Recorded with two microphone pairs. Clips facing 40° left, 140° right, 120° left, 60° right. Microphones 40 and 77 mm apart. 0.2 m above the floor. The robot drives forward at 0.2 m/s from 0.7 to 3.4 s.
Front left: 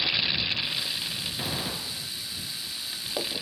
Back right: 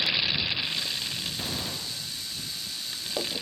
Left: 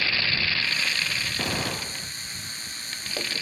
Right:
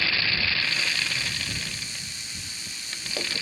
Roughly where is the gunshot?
Behind left.